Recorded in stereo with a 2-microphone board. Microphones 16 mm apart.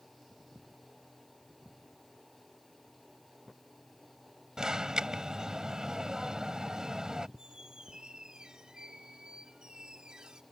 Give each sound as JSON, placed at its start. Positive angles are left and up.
{"t": 4.6, "sound": "an alarm", "side_deg": -40}
{"t": 7.4, "sound": "a squeak", "side_deg": -55}